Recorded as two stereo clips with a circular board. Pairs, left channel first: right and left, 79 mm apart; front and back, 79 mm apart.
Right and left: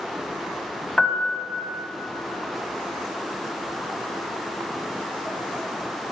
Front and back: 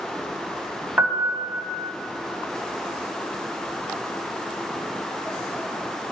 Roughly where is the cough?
No cough in this recording.